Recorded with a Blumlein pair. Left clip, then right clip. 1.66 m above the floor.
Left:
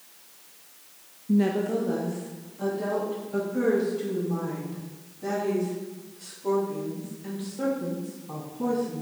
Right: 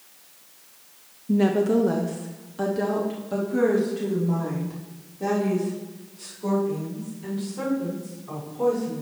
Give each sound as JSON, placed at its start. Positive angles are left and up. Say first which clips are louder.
{"t": 1.3, "sound": "a woman speaking", "louder": "right 4 dB", "azimuth_deg": -10, "distance_m": 0.6}